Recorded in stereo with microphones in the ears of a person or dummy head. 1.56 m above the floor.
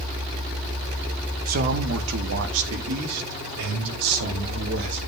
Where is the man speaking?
40° right (ahead or behind), 1.2 m; by 5.0 s 85° right, 4 m.